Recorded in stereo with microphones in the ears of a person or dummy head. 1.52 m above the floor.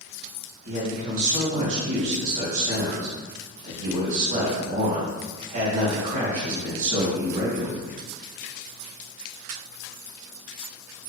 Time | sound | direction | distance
0.7 | a man speaking | 40° right (ahead or behind) | 1.8 m